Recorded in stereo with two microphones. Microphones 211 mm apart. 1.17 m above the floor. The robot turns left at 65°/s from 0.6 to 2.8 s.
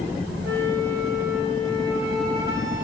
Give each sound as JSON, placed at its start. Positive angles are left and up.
{"t": 0.4, "sound": "a flute", "azimuth_deg": -80, "distance_m": 2.0}